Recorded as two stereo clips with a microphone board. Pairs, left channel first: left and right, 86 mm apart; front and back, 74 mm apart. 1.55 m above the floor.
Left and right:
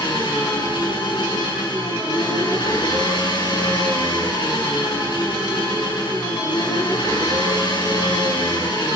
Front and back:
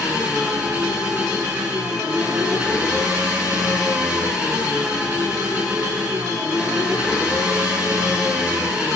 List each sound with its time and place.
0.0 s an engine running: 105° left, 8 m